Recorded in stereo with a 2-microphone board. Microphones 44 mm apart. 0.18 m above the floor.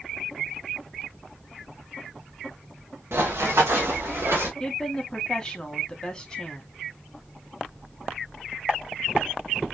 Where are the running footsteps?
75° right (ahead or behind), 1.5 m; by 4.5 s 65° right (ahead or behind), 1.9 m.